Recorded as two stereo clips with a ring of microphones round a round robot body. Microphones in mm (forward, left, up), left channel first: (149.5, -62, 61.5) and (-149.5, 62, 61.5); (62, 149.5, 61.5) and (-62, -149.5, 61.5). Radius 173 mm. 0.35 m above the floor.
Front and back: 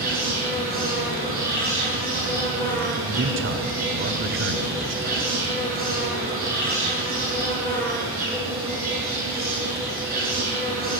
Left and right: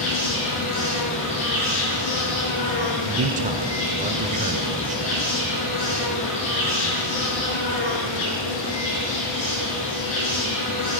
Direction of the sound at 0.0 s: 95° left.